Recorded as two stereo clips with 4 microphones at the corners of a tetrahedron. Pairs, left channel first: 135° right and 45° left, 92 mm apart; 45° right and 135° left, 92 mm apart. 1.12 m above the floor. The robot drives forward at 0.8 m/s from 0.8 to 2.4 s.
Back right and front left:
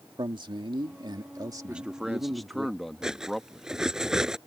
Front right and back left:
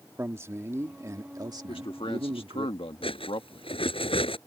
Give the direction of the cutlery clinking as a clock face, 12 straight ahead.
1 o'clock.